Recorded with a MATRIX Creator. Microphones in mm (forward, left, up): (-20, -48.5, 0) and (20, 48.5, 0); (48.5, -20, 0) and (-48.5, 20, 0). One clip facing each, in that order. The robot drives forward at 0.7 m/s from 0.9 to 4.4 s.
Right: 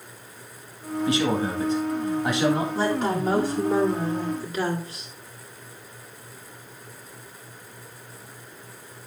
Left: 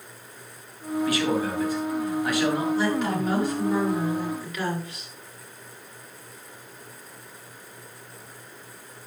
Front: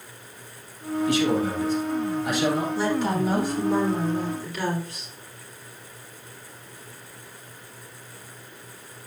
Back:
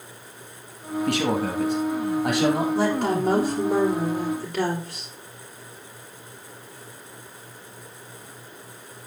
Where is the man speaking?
175° right, 2.0 m.